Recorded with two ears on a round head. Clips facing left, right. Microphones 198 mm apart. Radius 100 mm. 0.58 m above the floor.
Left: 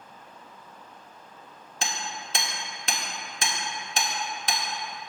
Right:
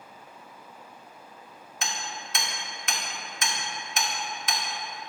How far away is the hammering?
About 1.3 m.